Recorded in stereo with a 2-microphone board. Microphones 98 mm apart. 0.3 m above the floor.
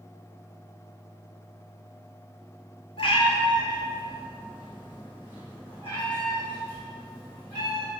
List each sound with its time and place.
3.0 s a cat meowing: 70° left (ahead or behind), 0.7 m; by 7.9 s 15° left (ahead or behind), 3 m